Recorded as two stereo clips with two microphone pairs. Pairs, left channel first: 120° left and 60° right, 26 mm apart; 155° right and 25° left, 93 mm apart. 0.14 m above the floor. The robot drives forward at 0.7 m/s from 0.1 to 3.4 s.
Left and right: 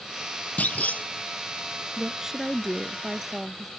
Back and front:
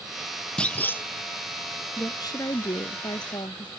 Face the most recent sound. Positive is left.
turn(degrees=-140)